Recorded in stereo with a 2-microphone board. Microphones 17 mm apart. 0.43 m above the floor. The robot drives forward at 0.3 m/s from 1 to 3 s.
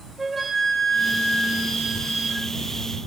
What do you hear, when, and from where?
0.2 s a flute: 5° right (ahead or behind), 1.2 m